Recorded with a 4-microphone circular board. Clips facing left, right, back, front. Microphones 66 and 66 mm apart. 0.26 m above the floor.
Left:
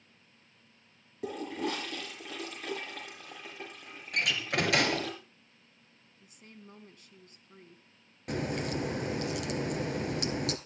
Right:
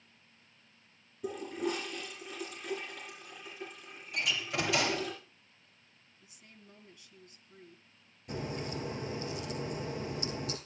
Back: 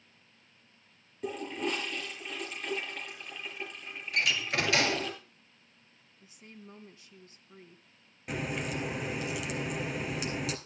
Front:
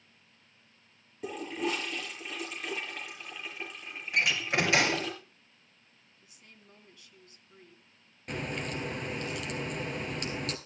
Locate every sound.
1.2 s a toilet flushing: 85° left, 6 m
4.1 s a door slam: 65° left, 3 m
6.2 s a woman speaking: 125° left, 2.5 m
8.3 s a crack: 95° left, 1.9 m